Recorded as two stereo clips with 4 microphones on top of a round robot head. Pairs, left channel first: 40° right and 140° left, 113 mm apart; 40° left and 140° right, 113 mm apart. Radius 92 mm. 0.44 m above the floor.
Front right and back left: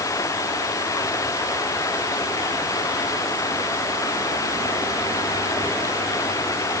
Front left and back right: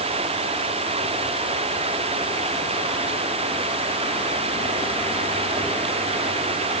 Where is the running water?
105° right.